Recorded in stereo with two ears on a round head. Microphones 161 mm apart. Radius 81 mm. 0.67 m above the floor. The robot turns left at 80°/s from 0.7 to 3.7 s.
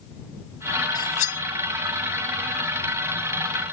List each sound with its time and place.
0.9 s cutlery clinking: 25° left (ahead or behind); by 1.4 s 60° left (ahead or behind)